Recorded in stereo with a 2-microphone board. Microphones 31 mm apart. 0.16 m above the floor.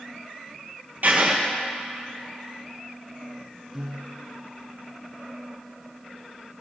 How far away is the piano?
About 1.8 m.